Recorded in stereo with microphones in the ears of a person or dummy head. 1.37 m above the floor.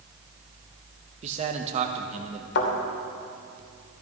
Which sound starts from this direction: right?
A man speaking, at 1.2 s.